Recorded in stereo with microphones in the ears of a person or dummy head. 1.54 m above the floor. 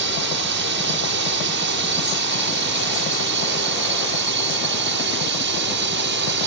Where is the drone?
60° right (ahead or behind).